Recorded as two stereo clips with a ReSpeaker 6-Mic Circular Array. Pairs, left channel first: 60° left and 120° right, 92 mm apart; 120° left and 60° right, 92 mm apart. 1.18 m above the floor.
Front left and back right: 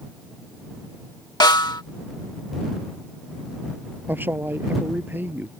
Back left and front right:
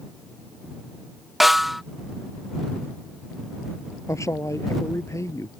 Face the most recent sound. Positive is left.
turn(degrees=175)